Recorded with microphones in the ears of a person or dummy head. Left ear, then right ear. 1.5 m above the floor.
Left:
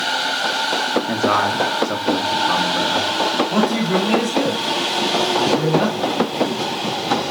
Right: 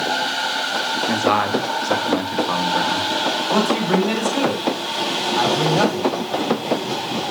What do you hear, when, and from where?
1.1 s a man speaking: 10° right (ahead or behind), 1.4 m
3.5 s a man speaking: 75° right (ahead or behind), 5 m